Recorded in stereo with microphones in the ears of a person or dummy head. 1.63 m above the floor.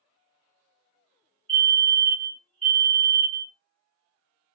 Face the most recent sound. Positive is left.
turn(degrees=-25)  # may be behind; listen again after turning